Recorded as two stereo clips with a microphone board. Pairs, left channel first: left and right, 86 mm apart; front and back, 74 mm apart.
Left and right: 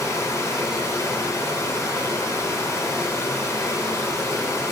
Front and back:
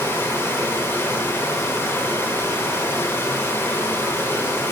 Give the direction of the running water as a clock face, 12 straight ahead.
10 o'clock.